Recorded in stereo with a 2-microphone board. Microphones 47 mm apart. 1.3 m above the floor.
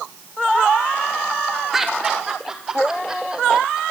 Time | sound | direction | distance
1.7 | laughter | 5° right (ahead or behind) | 4 m